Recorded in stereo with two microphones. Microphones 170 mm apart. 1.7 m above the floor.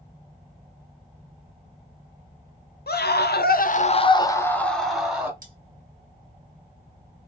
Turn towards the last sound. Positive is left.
turn(degrees=-55)  # may be behind; listen again after turning